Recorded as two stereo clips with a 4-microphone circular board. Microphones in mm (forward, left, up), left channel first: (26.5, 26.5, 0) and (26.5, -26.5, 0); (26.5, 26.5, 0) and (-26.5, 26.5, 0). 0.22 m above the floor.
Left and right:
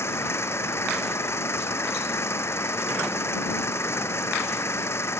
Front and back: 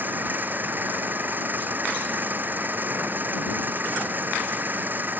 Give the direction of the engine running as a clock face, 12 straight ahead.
8 o'clock.